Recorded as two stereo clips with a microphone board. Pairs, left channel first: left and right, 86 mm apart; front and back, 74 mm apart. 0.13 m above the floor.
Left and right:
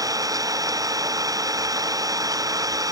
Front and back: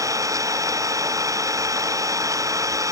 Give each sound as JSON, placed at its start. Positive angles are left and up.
{"t": 0.0, "sound": "an engine running", "azimuth_deg": -140}